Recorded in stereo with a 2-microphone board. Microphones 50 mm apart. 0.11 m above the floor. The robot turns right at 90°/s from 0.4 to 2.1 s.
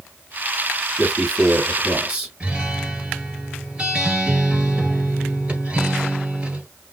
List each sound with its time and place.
1.0 s a man speaking: 5° right (ahead or behind), 1.5 m; by 2.3 s 20° right (ahead or behind), 1.5 m
2.4 s a guitar: 20° right (ahead or behind), 2 m